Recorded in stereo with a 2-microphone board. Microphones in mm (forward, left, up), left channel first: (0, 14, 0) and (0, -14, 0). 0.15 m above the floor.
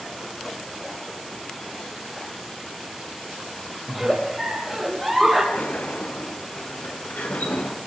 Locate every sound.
3.9 s a giggle: centre (ahead or behind), 5.5 m
5.5 s a sliding door: 70° left (ahead or behind), 4 m